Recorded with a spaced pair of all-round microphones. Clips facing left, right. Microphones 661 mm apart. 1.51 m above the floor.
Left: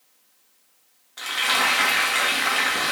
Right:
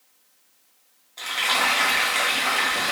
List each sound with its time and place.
1.2 s frying: 45° left (ahead or behind), 0.7 m